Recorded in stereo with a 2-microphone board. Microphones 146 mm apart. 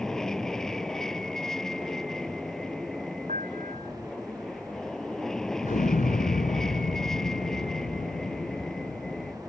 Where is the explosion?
65° left (ahead or behind).